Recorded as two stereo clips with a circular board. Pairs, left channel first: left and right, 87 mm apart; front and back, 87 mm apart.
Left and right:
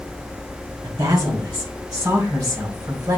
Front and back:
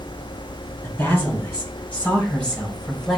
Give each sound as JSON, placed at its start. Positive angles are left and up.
{"t": 0.8, "sound": "a woman speaking", "azimuth_deg": -65, "distance_m": 2.5}